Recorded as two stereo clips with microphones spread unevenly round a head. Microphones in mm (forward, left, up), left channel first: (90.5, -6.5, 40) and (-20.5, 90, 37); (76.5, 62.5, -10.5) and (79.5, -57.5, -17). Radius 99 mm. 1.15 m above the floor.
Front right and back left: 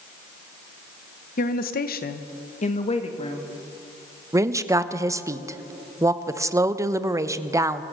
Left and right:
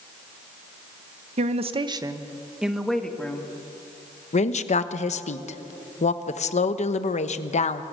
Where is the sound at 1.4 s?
75° right, 1.3 m; by 3.5 s 15° left, 2.5 m.